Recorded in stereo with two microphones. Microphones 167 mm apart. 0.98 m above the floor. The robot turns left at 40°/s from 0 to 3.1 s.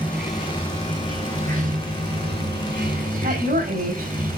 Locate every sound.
0.0 s running water: 10° left, 4.5 m; by 4.4 s 110° right, 4.5 m
3.2 s a woman speaking: 70° right (ahead or behind), 4.5 m